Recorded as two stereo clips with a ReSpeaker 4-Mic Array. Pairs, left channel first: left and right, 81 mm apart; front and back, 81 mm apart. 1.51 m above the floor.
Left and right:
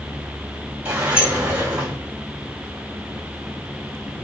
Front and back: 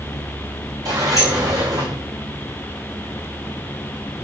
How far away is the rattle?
No rattle in this recording.